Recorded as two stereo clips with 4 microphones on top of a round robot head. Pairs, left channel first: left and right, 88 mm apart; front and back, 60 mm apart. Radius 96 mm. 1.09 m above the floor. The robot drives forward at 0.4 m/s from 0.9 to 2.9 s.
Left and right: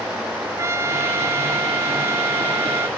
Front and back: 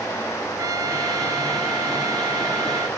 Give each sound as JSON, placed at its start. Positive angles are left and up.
{"t": 0.6, "sound": "a trumpet", "azimuth_deg": -150}